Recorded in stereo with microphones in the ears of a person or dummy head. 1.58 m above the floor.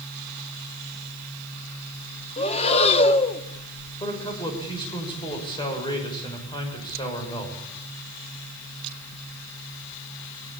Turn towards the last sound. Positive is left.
turn(degrees=20)  # may be behind; listen again after turning